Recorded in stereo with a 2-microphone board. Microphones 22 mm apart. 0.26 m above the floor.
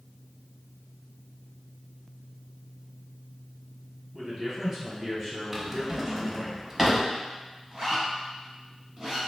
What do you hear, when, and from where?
4.1 s a man speaking: 10° right (ahead or behind), 1.9 m
5.5 s a drawer: 10° right (ahead or behind), 0.7 m
7.7 s a zipper: 25° right (ahead or behind), 1.4 m